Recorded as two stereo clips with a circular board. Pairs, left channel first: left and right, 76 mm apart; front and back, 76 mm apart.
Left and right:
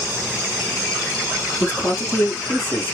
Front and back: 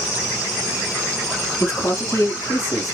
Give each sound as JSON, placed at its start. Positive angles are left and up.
{"t": 1.6, "sound": "a man speaking", "azimuth_deg": 35, "distance_m": 2.0}